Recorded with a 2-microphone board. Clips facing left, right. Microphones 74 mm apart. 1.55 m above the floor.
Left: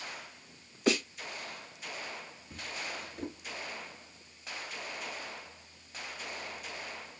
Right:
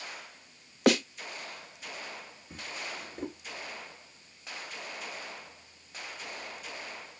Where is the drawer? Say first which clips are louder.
Even; 30° right (ahead or behind), 1.6 m.